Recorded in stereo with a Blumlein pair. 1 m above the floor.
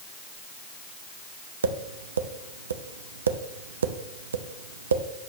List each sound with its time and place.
1.6 s tapping: 70° right, 0.6 m